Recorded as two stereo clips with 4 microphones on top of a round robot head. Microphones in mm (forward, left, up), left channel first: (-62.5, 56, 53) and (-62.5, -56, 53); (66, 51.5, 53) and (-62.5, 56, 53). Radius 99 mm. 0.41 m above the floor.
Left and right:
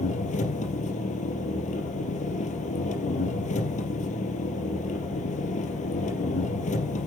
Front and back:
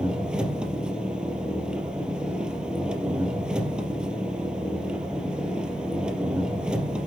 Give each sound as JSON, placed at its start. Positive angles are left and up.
{"t": 0.0, "sound": "an engine running", "azimuth_deg": 95, "distance_m": 3.5}